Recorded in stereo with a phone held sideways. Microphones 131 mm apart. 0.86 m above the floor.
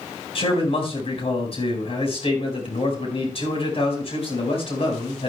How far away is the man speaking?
About 5 m.